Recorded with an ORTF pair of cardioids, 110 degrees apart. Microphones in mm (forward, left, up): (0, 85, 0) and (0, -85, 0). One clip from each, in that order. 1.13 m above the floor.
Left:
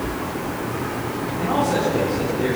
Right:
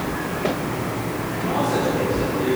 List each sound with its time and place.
1.4 s a man speaking: 35° left, 3.5 m